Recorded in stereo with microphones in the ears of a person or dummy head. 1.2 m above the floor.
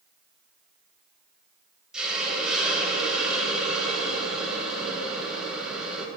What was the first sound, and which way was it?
A hiss, 5° right (ahead or behind).